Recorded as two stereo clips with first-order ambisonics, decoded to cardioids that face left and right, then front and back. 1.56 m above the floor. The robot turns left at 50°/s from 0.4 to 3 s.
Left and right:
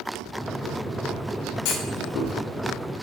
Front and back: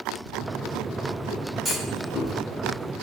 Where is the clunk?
85° left, 0.8 m; by 2.3 s 55° left, 0.8 m.